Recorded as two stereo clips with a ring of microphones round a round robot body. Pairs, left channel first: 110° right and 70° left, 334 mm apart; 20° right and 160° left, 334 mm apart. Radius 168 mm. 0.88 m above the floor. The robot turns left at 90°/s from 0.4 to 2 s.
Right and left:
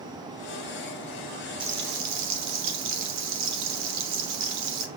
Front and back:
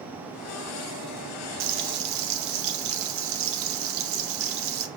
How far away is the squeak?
No squeak in this recording.